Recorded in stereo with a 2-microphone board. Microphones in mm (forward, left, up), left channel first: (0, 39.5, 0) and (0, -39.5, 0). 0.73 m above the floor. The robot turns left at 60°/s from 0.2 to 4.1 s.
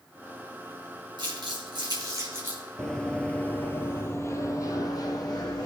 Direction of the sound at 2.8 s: 10° left (ahead or behind).